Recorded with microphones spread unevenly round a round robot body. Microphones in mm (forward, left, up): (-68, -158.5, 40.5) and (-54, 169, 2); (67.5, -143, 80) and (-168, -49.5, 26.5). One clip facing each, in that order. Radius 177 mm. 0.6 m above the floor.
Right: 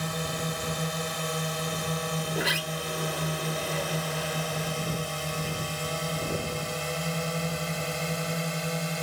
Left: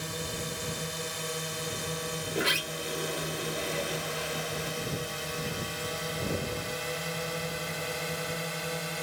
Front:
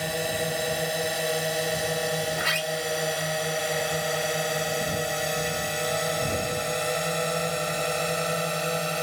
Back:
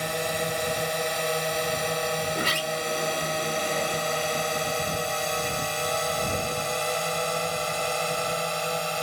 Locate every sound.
0.0 s a drone: 110° right; by 9.0 s 95° right
2.3 s a sliding door: 165° left